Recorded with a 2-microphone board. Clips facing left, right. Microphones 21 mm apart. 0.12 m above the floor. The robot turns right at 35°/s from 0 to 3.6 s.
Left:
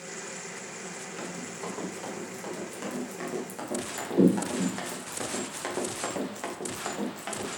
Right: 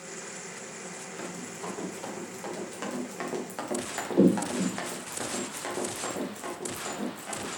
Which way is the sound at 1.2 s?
30° left (ahead or behind).